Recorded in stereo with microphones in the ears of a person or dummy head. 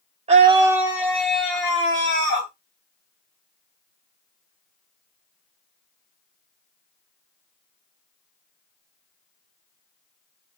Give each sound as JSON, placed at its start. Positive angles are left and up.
{"t": 0.3, "sound": "a scream", "side_deg": -30, "distance_m": 0.6}